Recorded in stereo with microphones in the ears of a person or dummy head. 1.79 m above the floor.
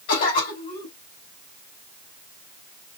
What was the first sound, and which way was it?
A cough, 70° left (ahead or behind).